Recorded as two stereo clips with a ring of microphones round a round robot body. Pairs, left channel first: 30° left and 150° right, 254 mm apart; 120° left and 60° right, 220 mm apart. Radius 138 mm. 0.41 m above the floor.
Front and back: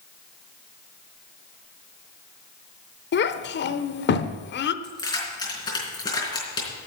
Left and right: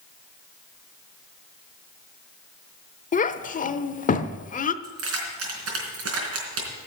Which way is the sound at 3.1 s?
70° left.